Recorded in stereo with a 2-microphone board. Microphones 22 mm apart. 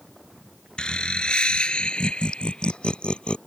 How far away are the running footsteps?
No running footsteps in this recording.